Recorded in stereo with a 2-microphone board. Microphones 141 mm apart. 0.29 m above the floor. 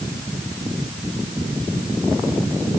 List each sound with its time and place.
Only background noise.